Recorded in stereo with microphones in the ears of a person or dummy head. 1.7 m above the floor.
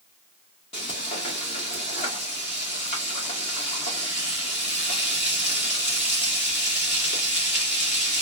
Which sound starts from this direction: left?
Frying, at 0.7 s.